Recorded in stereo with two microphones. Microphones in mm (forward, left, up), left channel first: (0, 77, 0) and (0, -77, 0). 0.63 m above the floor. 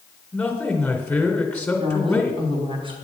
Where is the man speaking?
5° left (ahead or behind), 2.5 m.